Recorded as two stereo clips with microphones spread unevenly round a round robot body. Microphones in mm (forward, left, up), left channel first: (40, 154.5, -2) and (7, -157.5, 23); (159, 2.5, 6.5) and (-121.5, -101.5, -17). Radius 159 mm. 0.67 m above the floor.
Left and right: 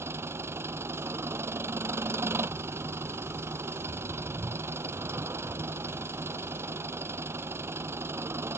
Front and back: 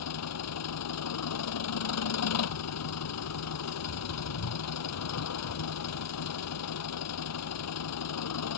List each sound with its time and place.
0.0 s an engine running: 15° right